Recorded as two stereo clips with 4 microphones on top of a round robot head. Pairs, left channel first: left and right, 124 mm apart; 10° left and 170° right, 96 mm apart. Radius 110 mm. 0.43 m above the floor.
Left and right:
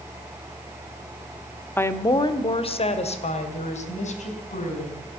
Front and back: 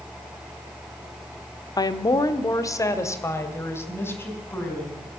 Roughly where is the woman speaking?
Ahead left.